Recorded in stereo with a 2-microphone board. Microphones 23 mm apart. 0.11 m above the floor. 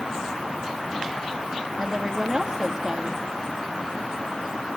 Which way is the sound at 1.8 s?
25° right (ahead or behind).